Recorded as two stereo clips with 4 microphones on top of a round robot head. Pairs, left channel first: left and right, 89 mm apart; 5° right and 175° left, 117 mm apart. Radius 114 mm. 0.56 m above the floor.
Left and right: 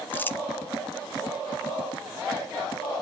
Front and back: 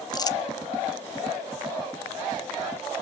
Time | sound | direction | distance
0.1 | crumpling | 35° left | 1.1 m